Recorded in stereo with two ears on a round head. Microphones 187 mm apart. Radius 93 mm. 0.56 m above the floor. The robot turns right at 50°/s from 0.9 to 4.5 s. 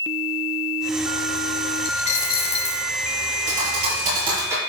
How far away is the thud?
About 4.5 m.